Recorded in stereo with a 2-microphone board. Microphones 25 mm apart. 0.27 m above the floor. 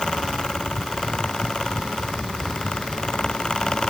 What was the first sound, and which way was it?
Only background noise.